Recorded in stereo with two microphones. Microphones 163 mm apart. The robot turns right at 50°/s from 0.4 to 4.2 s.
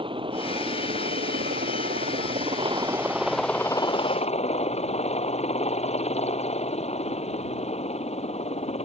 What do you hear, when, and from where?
0.0 s a helicopter: 145° right; by 8.9 s 45° left